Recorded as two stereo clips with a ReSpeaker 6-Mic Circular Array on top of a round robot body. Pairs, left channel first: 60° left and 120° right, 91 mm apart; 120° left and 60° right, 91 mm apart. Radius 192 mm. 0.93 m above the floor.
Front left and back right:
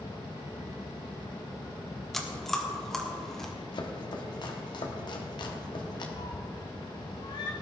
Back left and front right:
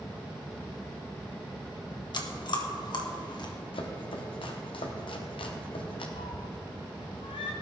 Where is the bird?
No bird in this recording.